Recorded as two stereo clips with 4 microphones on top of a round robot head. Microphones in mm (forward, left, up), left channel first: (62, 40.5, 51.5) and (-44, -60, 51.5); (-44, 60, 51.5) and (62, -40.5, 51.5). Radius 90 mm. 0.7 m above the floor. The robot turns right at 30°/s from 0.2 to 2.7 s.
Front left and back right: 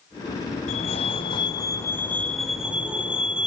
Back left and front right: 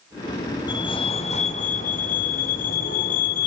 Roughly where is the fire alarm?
Left.